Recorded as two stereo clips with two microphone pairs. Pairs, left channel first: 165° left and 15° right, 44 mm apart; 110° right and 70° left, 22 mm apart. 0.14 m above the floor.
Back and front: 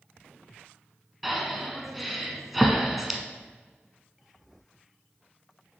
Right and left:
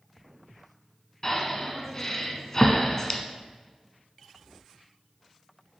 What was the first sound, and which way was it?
Breathing, 95° right.